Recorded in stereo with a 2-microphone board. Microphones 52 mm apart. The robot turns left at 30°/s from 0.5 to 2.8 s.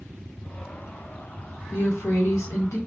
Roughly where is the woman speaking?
Behind left.